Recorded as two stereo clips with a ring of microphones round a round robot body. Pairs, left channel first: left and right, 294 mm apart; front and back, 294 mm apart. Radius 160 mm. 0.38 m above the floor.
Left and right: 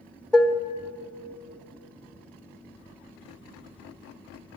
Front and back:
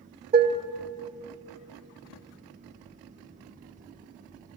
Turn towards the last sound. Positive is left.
turn(degrees=175)